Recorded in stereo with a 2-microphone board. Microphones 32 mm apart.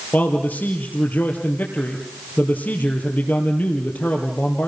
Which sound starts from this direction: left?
A man speaking, at 0.1 s.